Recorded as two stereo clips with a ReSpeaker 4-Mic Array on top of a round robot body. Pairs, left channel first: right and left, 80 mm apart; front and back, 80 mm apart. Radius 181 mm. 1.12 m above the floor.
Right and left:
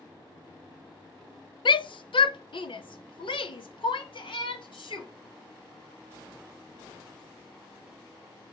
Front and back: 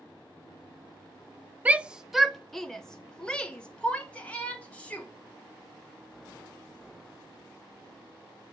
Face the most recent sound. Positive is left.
turn(degrees=-75)